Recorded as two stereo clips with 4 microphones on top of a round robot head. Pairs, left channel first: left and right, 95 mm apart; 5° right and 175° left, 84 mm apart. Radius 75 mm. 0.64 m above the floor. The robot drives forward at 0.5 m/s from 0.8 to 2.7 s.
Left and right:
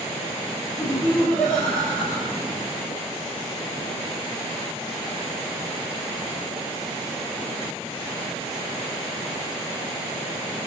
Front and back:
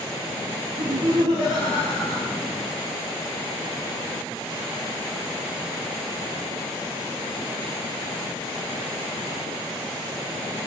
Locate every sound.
0.8 s laughter: 165° left, 1.0 m; by 2.3 s 170° left, 1.6 m